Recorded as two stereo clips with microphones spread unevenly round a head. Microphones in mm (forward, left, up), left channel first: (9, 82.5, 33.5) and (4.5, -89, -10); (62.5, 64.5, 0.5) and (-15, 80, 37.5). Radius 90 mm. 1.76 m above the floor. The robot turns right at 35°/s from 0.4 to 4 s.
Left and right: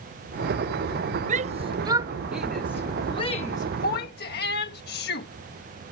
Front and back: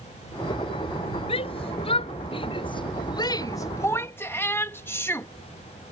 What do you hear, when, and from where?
1.3 s a shout: 40° right; by 5.3 s 55° left